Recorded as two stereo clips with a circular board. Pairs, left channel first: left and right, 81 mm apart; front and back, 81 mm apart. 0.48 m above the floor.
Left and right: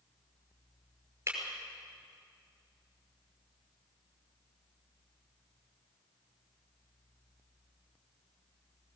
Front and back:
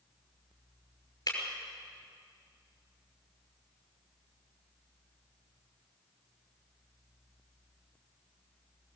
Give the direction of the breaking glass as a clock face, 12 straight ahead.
1 o'clock.